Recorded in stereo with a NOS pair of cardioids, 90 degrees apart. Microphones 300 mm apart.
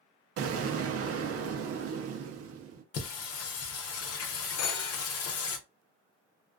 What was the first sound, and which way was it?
An explosion, 50° right.